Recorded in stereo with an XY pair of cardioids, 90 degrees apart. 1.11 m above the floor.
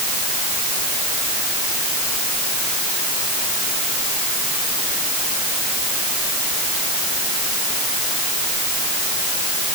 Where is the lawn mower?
I don't hear a lawn mower.